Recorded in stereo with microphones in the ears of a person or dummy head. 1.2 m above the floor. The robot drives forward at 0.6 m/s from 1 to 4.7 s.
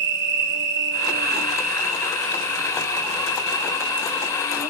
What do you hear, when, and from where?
0.0 s an insect: 60° right (ahead or behind), 1.0 m; by 4.7 s 20° right (ahead or behind), 3 m